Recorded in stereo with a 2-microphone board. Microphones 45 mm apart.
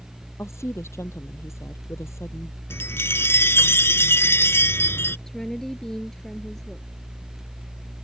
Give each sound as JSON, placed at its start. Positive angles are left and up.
{"t": 0.4, "sound": "a woman speaking", "side_deg": 80}
{"t": 2.7, "sound": "a chime", "side_deg": 60}
{"t": 5.3, "sound": "a woman speaking", "side_deg": 10}